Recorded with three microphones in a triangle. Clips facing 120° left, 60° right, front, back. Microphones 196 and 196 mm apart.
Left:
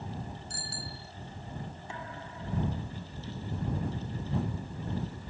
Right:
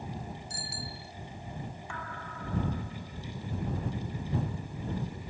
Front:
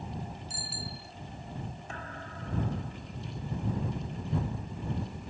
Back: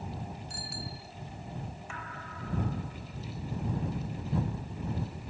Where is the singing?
No singing in this recording.